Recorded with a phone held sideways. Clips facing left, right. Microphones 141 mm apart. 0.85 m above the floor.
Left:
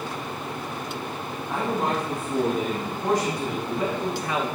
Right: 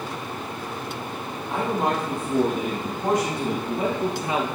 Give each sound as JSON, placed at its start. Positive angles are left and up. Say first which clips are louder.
{"t": 1.5, "sound": "a man speaking", "louder": "right 2 dB", "side_deg": -20, "distance_m": 2.0}